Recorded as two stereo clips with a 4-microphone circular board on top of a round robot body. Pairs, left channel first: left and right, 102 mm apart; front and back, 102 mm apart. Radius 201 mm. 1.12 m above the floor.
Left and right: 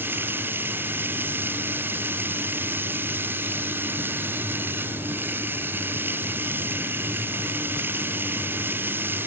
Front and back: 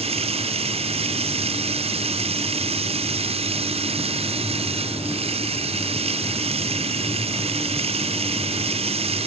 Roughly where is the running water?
Behind.